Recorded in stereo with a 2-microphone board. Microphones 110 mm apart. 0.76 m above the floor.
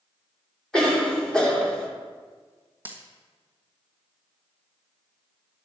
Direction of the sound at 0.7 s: 5° left (ahead or behind).